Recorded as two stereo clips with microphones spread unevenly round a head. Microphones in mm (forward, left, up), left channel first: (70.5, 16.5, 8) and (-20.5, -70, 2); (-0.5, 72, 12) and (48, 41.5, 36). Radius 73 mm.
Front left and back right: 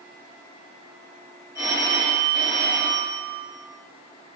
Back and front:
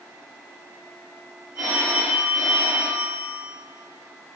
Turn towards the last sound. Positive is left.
turn(degrees=-75)